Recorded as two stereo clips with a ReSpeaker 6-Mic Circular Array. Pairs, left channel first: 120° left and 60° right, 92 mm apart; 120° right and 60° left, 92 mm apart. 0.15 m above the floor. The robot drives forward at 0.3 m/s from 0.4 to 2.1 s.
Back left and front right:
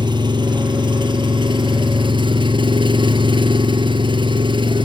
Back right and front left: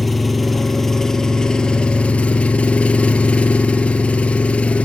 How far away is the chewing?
No chewing in this recording.